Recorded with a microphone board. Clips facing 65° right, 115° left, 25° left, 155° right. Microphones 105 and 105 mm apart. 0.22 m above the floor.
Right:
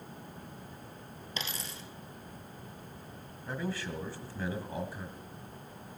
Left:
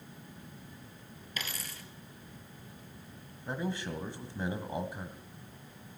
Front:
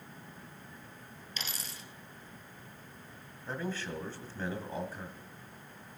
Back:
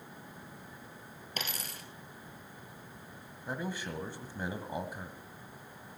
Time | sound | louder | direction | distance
1.4 | a dropped coin | right 1 dB, back 4 dB | 130° right | 1.5 m
3.5 | a man speaking | left 1 dB, even | 145° left | 1.3 m